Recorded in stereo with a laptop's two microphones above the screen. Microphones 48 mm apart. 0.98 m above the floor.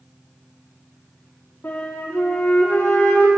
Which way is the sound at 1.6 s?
45° left (ahead or behind).